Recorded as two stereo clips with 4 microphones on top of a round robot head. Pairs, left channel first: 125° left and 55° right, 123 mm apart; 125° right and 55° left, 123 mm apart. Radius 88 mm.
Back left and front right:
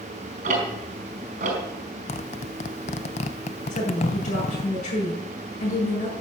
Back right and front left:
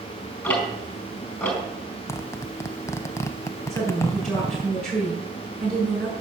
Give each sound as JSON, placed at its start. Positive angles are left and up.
{"t": 0.4, "sound": "ticking", "azimuth_deg": -55, "distance_m": 4.5}
{"t": 2.1, "sound": "a zipper", "azimuth_deg": 165, "distance_m": 0.6}
{"t": 3.7, "sound": "a woman speaking", "azimuth_deg": 145, "distance_m": 7.0}